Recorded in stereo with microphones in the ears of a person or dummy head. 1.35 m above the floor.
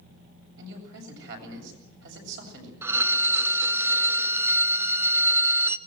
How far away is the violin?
About 0.7 m.